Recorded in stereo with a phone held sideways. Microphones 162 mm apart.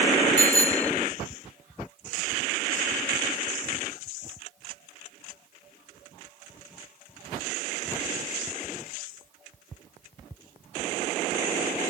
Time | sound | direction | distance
0.4 | a bicycle bell | 10° left (ahead or behind) | ?